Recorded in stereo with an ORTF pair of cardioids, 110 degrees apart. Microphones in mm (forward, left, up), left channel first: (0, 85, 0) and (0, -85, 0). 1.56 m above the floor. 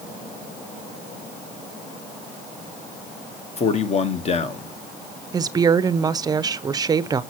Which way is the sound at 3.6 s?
40° left.